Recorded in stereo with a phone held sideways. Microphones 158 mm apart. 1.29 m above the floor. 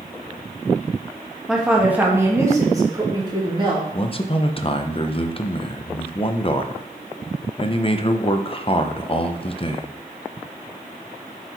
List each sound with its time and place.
1.5 s a woman speaking: 5° right (ahead or behind), 1.9 m; by 3.8 s 35° right (ahead or behind), 2.5 m
3.9 s a man speaking: 35° left (ahead or behind), 0.7 m